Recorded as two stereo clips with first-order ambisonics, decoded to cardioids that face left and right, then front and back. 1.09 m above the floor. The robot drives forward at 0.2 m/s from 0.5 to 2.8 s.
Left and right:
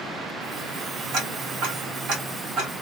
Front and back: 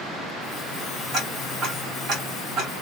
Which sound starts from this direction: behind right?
Ticking, at 1.1 s.